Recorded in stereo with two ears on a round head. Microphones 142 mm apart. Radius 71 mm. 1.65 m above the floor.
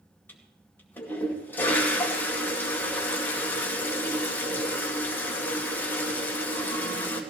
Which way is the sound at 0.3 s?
10° left (ahead or behind).